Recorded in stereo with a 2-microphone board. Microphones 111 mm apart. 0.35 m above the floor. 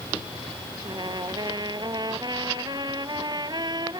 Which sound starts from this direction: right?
A trumpet, at 0.8 s.